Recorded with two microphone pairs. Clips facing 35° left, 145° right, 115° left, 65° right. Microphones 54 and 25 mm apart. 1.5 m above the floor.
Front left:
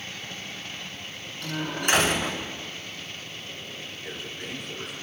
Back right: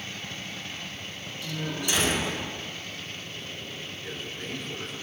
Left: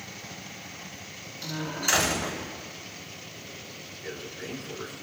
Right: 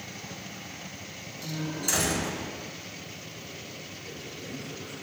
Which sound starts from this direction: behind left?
A man speaking, at 4.0 s.